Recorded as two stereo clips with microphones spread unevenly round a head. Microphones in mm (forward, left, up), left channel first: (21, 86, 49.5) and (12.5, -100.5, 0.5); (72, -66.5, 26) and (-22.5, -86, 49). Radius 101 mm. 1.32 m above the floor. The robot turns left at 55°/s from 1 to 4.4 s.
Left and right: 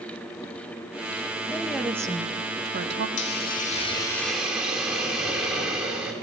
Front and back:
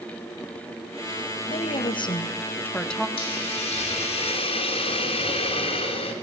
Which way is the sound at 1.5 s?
10° left.